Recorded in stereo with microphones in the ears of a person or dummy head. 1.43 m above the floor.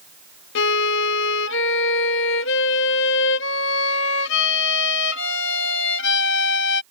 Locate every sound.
0.6 s a violin: 70° left (ahead or behind)